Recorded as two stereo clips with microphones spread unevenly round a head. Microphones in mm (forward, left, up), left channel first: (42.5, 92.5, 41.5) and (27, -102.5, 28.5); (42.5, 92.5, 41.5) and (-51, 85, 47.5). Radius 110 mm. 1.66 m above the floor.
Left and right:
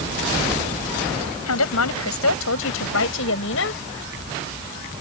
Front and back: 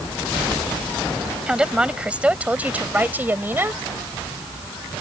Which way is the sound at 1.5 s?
105° left.